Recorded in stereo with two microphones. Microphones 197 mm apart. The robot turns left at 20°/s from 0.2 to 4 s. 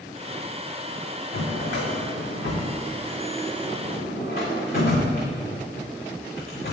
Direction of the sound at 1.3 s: 75° left (ahead or behind).